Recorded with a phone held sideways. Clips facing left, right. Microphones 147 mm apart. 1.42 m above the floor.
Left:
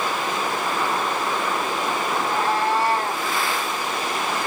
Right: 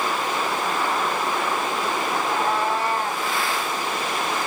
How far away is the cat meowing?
About 1.5 m.